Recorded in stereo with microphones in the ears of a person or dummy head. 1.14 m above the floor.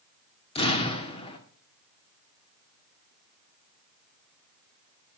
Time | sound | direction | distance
0.6 | an explosion | 30° left (ahead or behind) | 2.0 m